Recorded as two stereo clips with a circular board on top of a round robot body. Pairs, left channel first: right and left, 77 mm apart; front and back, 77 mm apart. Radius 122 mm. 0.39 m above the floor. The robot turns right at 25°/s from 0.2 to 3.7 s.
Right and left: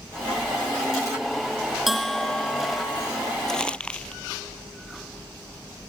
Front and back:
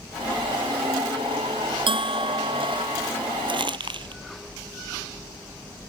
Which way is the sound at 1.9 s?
Straight behind.